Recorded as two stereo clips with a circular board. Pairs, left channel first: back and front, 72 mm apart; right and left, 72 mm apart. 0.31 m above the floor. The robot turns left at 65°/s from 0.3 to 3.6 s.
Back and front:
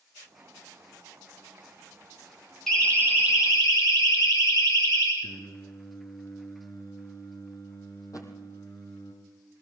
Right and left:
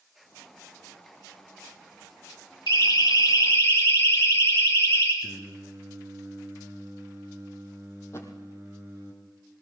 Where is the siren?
95° right, 7 m; by 5.1 s 145° right, 9.5 m.